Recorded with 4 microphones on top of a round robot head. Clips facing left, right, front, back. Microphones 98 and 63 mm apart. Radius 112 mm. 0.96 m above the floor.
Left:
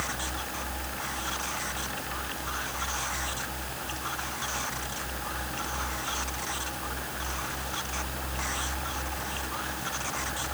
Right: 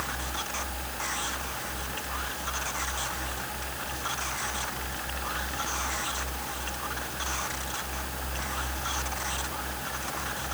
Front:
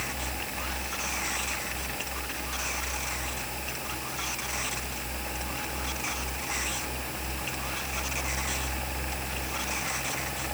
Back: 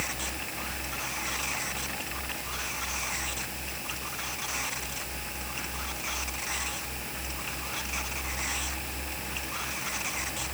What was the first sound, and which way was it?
Only background noise.